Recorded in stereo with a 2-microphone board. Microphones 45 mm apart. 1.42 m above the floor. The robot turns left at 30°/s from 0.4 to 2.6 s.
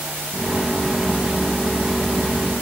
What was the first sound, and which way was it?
Only background noise.